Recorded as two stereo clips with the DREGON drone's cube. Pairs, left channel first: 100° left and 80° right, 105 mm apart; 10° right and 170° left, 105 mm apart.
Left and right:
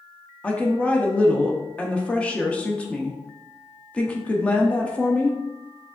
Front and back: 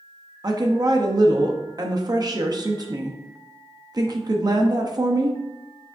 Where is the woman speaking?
170° left, 0.7 m.